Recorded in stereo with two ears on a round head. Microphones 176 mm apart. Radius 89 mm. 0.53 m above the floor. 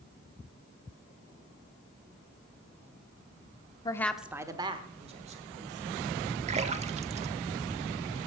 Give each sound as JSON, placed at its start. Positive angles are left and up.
{"t": 3.9, "sound": "a woman speaking", "side_deg": 20, "distance_m": 0.7}
{"t": 6.5, "sound": "a splash", "side_deg": -35, "distance_m": 0.7}